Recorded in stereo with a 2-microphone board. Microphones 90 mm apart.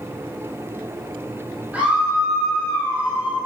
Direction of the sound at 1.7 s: 15° right (ahead or behind).